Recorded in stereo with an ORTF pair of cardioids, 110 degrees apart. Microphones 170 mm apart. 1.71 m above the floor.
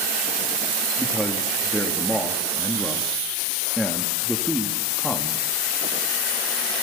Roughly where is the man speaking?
Ahead.